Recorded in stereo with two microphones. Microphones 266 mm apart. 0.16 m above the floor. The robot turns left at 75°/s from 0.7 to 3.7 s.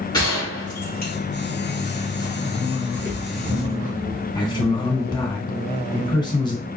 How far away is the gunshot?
About 2.5 m.